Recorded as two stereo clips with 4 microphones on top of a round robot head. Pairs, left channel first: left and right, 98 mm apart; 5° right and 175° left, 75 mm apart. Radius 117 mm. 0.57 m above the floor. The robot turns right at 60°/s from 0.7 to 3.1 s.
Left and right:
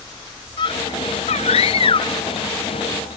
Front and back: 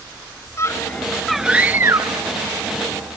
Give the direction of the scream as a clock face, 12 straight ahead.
10 o'clock.